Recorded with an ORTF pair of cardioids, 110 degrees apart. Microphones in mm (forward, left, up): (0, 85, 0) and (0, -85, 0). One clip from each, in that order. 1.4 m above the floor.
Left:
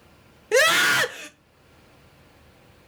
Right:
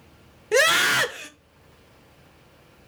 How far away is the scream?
About 1.1 m.